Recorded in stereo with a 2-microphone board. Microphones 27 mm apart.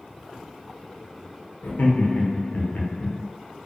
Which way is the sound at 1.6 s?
85° left.